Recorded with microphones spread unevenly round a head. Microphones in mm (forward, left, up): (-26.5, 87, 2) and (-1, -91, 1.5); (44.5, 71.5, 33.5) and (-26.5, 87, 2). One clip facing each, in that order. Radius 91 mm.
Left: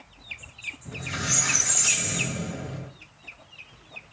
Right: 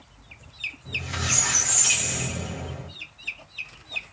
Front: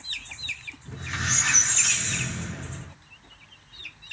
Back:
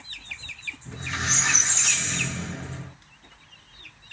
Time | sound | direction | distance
0.8 | a squeak | 10° left | 0.9 m